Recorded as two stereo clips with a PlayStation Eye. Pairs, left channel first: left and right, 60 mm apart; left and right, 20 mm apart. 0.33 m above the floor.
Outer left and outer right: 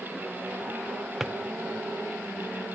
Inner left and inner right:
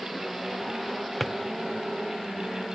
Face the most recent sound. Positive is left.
turn(degrees=-5)  # may be behind; listen again after turning